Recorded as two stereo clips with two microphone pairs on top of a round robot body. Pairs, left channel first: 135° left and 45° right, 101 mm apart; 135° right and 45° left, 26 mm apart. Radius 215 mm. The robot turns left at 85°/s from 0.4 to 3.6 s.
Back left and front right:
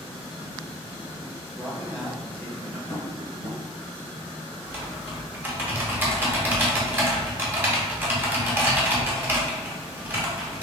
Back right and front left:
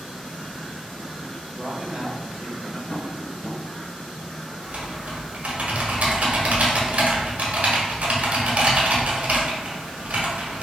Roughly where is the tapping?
Behind right.